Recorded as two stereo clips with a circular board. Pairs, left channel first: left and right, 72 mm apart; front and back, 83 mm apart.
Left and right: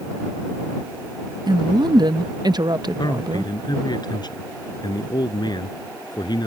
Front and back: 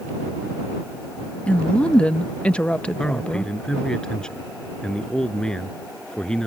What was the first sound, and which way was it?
A woman speaking, 75° right.